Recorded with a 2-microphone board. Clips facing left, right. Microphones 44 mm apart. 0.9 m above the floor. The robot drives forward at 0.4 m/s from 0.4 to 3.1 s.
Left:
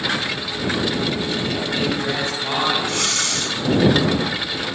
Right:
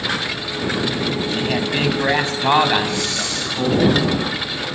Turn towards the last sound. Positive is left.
turn(degrees=65)  # may be behind; listen again after turning